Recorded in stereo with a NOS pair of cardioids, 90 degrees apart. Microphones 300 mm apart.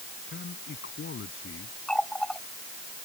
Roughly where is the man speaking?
Ahead left.